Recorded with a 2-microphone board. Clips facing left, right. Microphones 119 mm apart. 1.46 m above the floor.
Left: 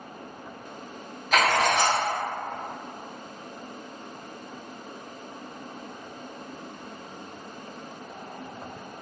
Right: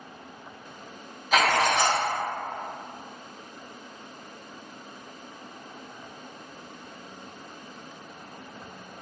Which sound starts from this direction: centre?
Writing, at 1.3 s.